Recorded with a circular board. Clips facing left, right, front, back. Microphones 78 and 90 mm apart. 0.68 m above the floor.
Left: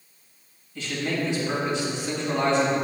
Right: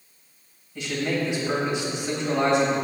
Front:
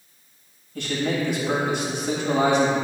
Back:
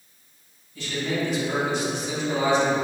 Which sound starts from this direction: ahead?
A man speaking, at 0.8 s.